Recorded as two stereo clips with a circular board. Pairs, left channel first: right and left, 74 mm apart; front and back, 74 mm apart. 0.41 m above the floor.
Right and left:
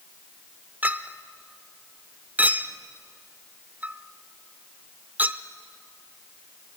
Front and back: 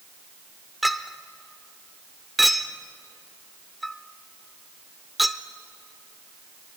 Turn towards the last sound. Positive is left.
turn(degrees=95)